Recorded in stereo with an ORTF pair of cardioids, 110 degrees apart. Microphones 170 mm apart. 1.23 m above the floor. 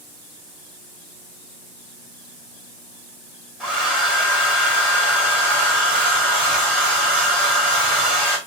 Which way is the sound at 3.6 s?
5° left.